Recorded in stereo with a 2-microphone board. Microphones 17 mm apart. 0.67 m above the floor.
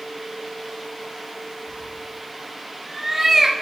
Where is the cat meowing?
10° right (ahead or behind), 2.5 m; by 3.5 s 40° right (ahead or behind), 0.7 m.